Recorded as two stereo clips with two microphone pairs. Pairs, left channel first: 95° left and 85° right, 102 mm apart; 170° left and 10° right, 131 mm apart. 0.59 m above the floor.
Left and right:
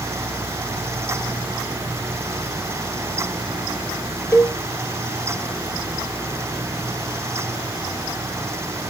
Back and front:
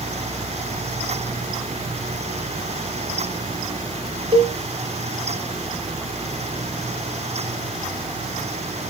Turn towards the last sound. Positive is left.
turn(degrees=35)